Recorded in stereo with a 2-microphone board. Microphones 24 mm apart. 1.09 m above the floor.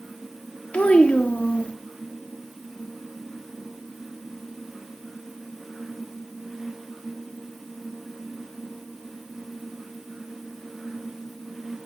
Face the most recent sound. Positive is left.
turn(degrees=65)  # may be behind; listen again after turning